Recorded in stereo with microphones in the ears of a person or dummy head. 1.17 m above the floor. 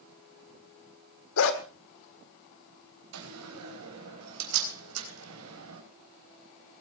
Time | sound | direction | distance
1.4 | a dog barking | 70° left (ahead or behind) | 1.6 m
3.1 | a door slam | 80° right | 4 m